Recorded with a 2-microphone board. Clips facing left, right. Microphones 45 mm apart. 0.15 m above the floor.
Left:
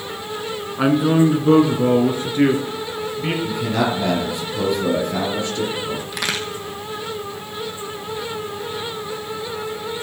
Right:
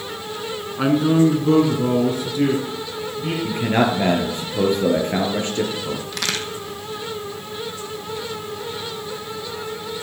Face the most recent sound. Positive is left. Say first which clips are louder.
# left 2 dB
turn(degrees=10)  # may be behind; listen again after turning